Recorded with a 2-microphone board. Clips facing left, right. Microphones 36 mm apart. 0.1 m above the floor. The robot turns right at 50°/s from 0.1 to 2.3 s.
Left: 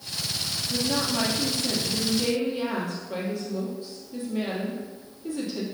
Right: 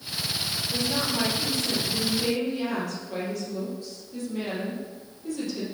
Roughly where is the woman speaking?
Left.